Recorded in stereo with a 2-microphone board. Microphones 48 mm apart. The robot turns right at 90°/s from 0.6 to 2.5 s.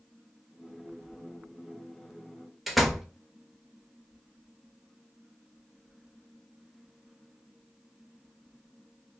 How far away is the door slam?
About 0.5 m.